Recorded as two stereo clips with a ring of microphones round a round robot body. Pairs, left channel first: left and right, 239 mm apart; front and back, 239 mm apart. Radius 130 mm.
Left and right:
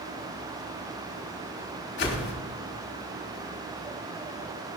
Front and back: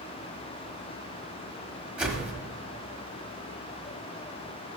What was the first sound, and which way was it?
A whoosh, 95° left.